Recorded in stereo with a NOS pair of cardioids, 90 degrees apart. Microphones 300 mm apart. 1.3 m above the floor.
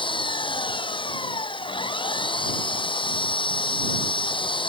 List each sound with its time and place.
0.0 s an engine running: 15° left